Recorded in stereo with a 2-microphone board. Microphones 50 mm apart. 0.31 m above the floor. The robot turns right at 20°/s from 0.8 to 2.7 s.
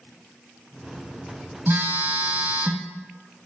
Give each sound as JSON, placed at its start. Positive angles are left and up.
{"t": 1.7, "sound": "a phone buzzing", "side_deg": -50, "distance_m": 0.7}